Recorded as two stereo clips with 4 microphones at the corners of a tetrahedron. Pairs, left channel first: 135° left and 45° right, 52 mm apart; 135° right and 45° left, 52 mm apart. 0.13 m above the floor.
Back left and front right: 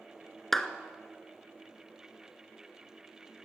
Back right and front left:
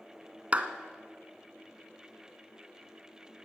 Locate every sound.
0.5 s a clap: 60° left, 1.6 m